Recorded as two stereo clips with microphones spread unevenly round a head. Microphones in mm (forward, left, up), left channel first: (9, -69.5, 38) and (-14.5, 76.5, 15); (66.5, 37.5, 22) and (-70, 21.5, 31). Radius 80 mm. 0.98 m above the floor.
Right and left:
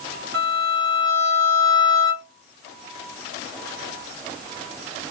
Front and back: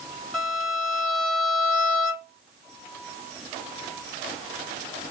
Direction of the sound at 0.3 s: 95° left.